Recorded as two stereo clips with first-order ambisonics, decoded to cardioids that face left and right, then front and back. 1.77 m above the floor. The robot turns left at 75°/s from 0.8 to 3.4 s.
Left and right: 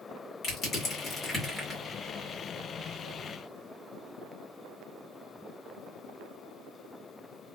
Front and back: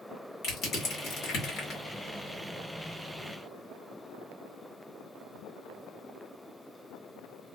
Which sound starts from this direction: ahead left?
Crushing, at 0.4 s.